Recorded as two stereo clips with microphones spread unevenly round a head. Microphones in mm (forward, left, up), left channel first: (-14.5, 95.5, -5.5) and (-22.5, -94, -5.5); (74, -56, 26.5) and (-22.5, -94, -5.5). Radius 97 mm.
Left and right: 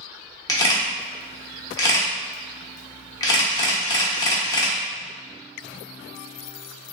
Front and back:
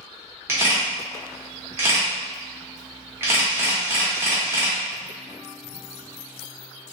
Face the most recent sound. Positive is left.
turn(degrees=115)